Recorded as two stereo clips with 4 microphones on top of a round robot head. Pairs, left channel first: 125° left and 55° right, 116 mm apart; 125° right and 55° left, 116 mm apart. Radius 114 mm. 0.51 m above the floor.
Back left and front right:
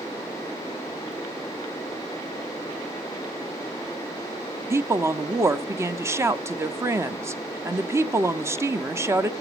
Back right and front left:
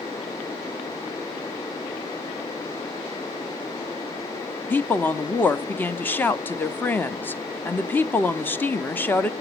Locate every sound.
4.7 s a woman speaking: 80° right, 0.9 m